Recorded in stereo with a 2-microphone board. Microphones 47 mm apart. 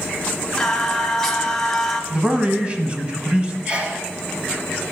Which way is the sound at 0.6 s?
10° left (ahead or behind).